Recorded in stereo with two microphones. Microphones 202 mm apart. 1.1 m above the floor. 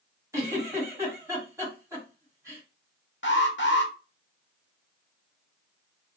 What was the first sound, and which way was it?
A giggle, 15° right (ahead or behind).